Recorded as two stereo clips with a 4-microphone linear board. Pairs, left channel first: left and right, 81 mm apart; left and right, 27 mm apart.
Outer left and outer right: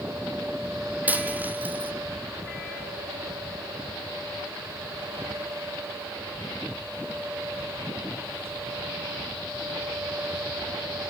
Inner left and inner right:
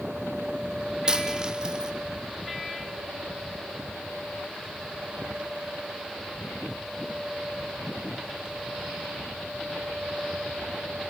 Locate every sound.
1.1 s a dropped coin: 20° right (ahead or behind), 1.3 m